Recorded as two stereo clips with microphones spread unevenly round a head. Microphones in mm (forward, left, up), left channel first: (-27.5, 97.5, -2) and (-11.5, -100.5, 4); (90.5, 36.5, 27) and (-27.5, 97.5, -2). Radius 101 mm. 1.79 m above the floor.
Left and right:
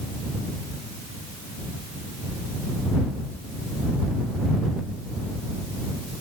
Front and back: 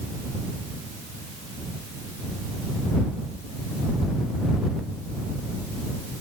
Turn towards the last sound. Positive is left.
No sound to turn to.